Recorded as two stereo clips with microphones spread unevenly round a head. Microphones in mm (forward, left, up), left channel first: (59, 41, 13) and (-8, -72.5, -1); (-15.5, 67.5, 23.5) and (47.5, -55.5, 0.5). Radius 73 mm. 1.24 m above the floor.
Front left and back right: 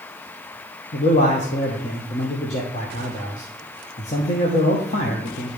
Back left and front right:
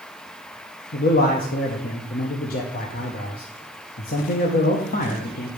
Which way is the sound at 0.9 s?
100° left.